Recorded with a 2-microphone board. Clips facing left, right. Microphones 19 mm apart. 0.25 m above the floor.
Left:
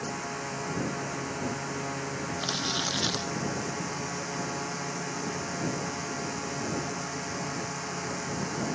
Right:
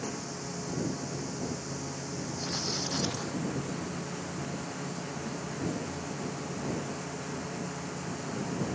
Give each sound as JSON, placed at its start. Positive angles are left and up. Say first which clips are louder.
{"t": 0.0, "sound": "a drone", "louder": "left 3 dB", "side_deg": 50}
{"t": 2.4, "sound": "crumpling", "louder": "left 4 dB", "side_deg": 65}